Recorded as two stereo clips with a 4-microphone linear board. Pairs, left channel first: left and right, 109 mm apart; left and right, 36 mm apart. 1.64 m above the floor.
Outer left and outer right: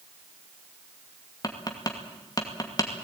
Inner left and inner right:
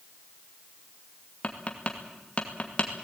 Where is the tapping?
35° left (ahead or behind), 2.5 m.